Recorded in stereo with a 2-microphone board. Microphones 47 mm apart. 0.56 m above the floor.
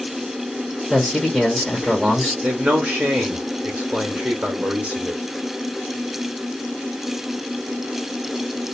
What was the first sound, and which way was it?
A man speaking, centre (ahead or behind).